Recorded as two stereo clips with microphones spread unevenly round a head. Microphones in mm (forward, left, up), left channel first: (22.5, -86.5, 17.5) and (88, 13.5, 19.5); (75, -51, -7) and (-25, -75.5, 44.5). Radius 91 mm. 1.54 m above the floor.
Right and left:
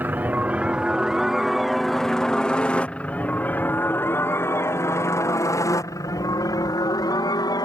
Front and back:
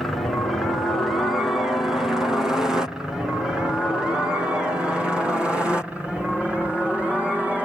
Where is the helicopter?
5° right; by 7.6 s 75° right.